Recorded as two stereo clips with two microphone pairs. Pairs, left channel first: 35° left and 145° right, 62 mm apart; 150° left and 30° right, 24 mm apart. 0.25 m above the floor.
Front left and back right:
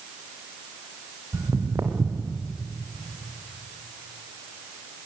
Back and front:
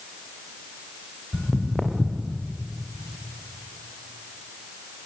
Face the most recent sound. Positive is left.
turn(degrees=-115)